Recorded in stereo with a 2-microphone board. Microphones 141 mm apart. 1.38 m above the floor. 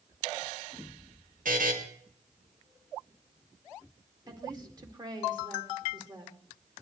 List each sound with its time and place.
1.4 s a buzzer: 75° right (ahead or behind), 2.5 m
4.3 s a woman speaking: 30° right (ahead or behind), 2 m